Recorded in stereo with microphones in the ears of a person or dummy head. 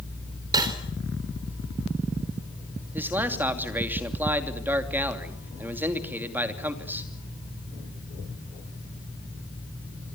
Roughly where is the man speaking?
Centre.